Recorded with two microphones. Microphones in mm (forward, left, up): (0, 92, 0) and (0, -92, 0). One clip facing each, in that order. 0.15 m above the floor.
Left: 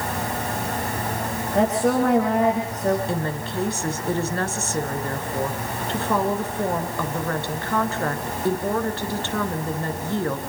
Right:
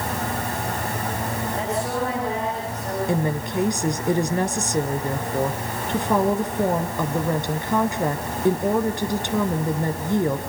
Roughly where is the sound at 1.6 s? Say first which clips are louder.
Left 8 dB; left.